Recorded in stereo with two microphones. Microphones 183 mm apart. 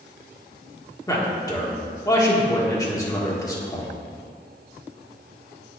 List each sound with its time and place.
1.1 s a man speaking: 20° left (ahead or behind), 1.6 m